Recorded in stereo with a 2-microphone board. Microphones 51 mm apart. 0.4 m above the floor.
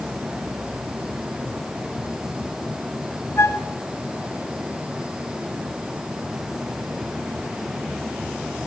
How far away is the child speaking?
No child speaking in this recording.